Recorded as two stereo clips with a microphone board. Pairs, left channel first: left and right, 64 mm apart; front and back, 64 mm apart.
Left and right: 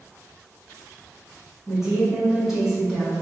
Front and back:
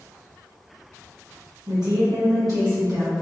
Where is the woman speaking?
170° right, 1.4 m; by 3.1 s straight behind, 2 m.